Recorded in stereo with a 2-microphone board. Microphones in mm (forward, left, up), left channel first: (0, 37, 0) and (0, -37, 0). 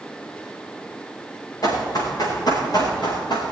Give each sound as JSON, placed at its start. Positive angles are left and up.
{"t": 1.6, "sound": "running footsteps", "side_deg": 50, "distance_m": 5.0}